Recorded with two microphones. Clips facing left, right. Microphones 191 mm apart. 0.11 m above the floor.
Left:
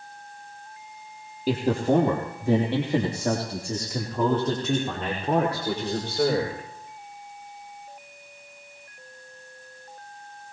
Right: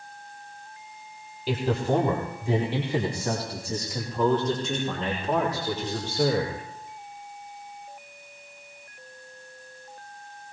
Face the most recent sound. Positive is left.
turn(degrees=60)  # may be behind; listen again after turning